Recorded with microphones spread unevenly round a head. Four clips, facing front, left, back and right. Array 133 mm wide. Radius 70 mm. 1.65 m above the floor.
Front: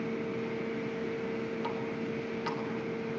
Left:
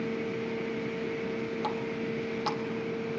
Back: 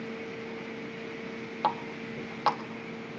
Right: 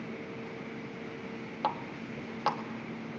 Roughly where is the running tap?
Behind right.